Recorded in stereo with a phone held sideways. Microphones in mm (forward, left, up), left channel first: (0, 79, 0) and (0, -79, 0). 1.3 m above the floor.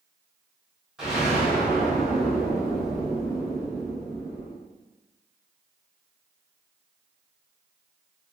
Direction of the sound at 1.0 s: 5° right (ahead or behind).